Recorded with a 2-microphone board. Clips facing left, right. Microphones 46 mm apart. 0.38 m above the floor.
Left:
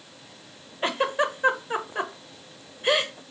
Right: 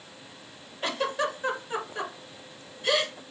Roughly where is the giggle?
Left.